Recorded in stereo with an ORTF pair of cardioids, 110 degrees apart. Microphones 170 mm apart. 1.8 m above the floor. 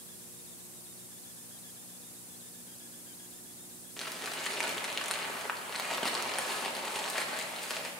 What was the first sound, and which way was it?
Crumpling, straight ahead.